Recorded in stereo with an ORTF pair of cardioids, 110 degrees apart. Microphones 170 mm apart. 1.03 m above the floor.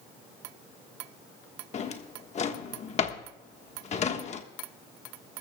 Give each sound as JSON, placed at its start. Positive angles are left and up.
{"t": 1.7, "sound": "a drawer", "azimuth_deg": 40, "distance_m": 1.4}